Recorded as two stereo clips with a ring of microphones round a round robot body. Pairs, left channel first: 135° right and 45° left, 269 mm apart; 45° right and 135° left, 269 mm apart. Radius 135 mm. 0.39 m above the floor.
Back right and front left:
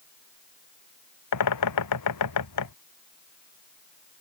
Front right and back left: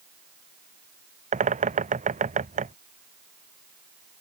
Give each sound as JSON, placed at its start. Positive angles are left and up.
{"t": 1.3, "sound": "a bird", "azimuth_deg": -160}